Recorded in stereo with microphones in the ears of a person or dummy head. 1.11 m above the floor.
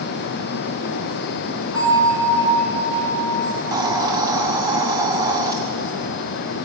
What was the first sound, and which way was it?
A bell, 5° left (ahead or behind).